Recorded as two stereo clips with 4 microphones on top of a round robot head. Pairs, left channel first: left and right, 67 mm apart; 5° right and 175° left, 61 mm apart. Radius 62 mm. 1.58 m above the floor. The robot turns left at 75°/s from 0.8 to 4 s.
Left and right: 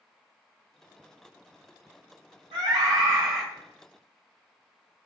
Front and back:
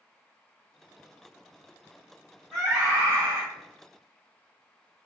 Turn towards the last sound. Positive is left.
turn(degrees=150)